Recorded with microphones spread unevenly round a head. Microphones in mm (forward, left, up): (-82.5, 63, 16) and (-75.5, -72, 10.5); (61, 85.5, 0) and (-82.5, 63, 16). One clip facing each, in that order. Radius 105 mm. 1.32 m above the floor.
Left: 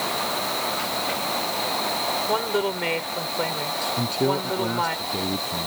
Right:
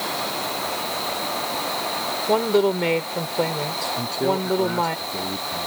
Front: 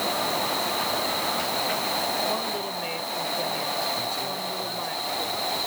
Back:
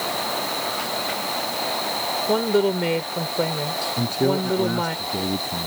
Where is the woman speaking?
145° right.